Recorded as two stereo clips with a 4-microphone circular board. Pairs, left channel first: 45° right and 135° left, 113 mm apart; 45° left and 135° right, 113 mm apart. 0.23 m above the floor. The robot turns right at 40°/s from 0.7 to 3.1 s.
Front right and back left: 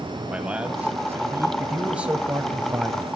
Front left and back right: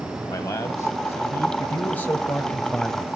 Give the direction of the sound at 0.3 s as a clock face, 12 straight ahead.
10 o'clock.